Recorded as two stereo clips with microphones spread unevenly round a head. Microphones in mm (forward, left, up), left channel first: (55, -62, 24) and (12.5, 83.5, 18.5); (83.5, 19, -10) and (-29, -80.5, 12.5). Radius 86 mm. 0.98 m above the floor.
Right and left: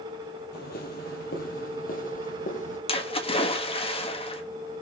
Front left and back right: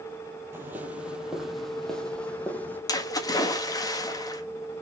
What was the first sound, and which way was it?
Footsteps, 70° right.